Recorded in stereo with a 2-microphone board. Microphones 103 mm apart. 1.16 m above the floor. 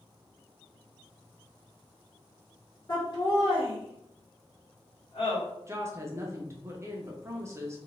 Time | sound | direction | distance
2.9 | laughter | 40° left (ahead or behind) | 1.2 m
5.7 | a woman speaking | 25° right (ahead or behind) | 0.6 m